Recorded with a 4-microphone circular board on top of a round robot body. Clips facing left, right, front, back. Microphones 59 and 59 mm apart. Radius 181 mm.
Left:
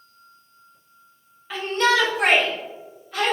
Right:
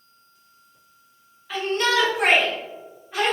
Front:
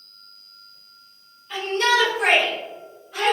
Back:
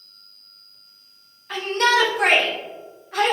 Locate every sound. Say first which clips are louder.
1.5 s a shout: left 2 dB, back 1 dB; straight behind, 1.1 m; by 3.4 s 160° right, 1.9 m